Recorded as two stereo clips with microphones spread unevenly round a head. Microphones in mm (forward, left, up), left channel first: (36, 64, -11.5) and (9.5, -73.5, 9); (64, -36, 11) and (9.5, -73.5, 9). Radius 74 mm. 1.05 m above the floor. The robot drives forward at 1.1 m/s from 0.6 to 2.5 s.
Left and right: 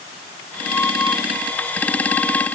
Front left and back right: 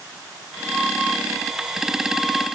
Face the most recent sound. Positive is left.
No sound to turn to.